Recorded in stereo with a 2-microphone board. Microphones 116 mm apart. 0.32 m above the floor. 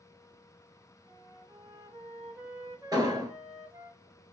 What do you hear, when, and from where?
1.1 s a flute: 40° right (ahead or behind), 1.4 m
2.9 s an explosion: 35° right (ahead or behind), 0.9 m